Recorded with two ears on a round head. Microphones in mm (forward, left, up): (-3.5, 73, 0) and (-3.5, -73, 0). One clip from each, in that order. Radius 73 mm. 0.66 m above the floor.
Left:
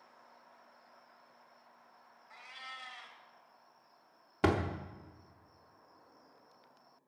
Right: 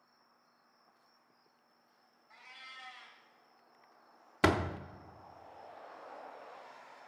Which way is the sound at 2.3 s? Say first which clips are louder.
Left 3 dB; 15° left (ahead or behind).